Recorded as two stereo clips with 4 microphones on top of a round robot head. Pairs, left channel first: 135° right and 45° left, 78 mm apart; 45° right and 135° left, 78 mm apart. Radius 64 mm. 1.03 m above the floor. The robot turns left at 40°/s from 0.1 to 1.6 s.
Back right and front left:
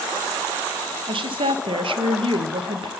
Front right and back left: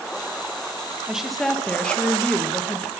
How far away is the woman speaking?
About 0.7 m.